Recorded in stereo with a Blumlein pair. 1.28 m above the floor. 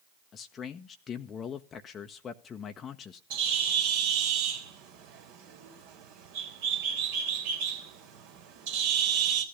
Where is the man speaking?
25° left, 1.0 m.